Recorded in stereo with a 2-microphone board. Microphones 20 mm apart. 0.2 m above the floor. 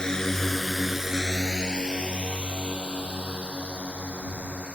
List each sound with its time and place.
0.0 s a drone: 30° left (ahead or behind); by 4.8 s 75° right (ahead or behind)